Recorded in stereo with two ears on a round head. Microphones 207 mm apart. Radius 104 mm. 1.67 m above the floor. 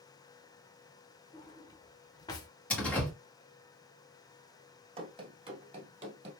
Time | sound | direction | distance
1.3 | a drawer | 20° left (ahead or behind) | 0.8 m
2.7 | a door slam | 5° left (ahead or behind) | 1.7 m
5.0 | running footsteps | 25° right (ahead or behind) | 1.8 m